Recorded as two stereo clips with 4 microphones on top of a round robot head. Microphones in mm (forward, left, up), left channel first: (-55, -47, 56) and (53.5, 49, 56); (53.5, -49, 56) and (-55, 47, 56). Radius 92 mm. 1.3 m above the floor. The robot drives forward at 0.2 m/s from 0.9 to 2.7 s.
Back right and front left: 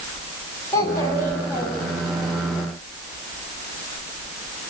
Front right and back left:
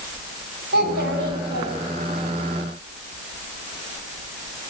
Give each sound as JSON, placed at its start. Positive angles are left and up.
{"t": 0.7, "sound": "a child speaking", "azimuth_deg": 150, "distance_m": 8.5}